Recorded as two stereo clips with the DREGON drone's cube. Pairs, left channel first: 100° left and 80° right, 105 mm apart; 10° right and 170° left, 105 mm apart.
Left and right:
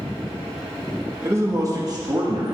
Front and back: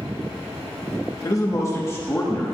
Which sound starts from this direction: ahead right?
A man speaking, at 1.2 s.